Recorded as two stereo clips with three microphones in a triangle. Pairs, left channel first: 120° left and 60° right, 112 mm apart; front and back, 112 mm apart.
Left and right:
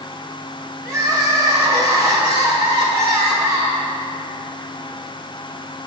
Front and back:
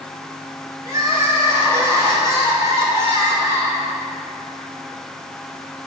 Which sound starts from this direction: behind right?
Crying, at 0.8 s.